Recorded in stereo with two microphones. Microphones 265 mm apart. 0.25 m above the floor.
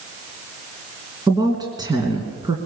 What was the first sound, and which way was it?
A woman speaking, 15° right (ahead or behind).